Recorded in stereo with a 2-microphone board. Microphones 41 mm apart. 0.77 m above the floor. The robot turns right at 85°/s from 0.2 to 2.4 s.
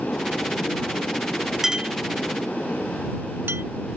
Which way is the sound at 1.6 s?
10° right (ahead or behind).